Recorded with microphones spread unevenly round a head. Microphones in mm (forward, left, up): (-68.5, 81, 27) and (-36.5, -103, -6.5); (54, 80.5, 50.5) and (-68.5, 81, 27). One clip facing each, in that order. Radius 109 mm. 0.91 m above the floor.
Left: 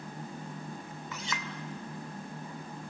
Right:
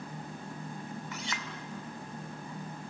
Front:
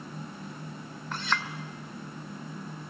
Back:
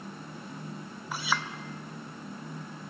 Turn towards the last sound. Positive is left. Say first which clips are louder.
# left 1 dB, even
turn(degrees=95)